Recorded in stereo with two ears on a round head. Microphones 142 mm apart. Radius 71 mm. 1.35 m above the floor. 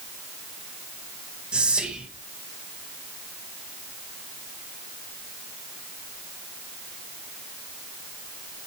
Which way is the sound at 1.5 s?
5° right (ahead or behind).